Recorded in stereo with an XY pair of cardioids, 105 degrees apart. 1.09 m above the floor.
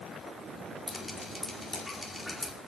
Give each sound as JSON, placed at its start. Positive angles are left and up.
{"t": 0.9, "sound": "dripping", "azimuth_deg": 5, "distance_m": 2.5}